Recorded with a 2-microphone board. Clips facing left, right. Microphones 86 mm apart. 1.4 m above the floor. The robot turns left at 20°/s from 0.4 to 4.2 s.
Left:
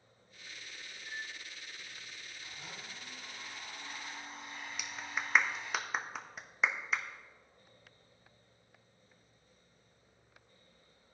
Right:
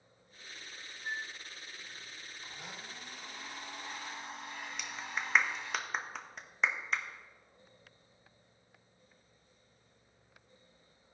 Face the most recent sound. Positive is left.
turn(degrees=5)  # may be behind; listen again after turning